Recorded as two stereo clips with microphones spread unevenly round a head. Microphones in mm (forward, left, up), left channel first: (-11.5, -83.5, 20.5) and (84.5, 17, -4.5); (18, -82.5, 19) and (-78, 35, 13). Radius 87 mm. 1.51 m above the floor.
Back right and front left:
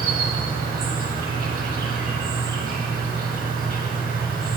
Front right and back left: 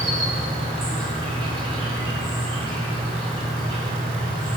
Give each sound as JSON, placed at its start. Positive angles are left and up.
{"t": 0.0, "sound": "an insect", "azimuth_deg": 70, "distance_m": 2.0}